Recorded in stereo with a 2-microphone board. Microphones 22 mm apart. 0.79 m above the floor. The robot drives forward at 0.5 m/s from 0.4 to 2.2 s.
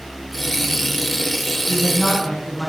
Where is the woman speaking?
35° left (ahead or behind), 6 m; by 2.7 s 30° left (ahead or behind), 6.5 m.